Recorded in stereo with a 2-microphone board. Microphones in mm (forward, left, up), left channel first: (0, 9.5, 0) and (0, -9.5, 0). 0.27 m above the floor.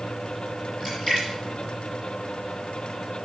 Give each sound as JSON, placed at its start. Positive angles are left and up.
{"t": 0.8, "sound": "a splash", "side_deg": 20, "distance_m": 5.5}